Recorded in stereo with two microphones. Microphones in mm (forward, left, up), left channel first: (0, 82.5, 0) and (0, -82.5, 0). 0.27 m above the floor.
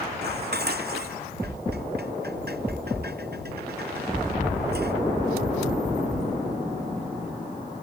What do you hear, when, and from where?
0.2 s dishes clattering: 80° right